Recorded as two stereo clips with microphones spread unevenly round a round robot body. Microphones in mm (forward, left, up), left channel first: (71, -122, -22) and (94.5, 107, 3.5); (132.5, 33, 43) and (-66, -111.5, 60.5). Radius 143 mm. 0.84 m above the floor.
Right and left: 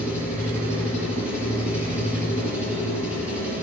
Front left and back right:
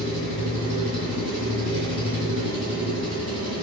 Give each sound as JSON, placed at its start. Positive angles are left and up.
{"t": 0.0, "sound": "an engine running", "azimuth_deg": 180, "distance_m": 4.0}